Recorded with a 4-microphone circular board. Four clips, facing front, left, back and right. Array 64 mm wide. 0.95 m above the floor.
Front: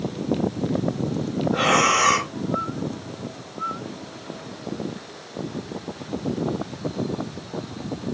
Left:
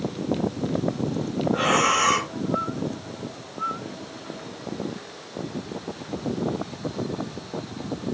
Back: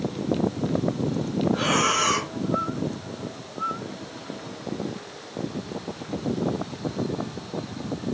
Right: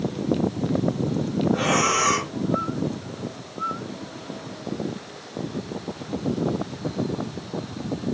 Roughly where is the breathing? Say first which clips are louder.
Left 2 dB, front 5 dB; ahead.